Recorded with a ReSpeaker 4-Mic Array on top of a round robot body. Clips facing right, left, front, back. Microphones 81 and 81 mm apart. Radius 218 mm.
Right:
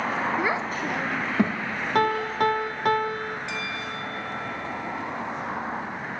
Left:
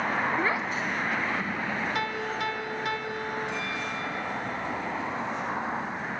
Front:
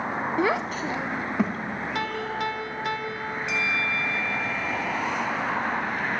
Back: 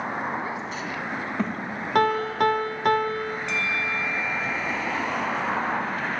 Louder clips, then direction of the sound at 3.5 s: Even, front 3 dB; 85° right.